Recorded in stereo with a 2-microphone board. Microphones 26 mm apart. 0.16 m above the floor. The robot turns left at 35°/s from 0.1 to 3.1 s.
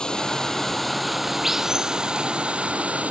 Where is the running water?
35° left; by 3.1 s 70° right.